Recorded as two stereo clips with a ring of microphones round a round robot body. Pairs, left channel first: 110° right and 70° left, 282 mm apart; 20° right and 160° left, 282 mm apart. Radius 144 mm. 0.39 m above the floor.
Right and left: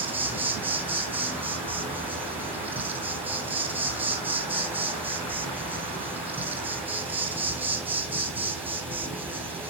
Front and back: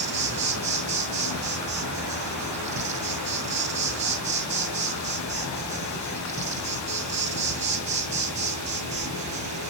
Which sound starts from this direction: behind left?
An insect, at 0.0 s.